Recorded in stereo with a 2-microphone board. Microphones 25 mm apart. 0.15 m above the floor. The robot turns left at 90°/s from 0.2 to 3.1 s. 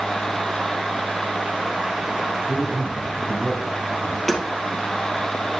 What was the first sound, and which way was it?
A man speaking, 155° right.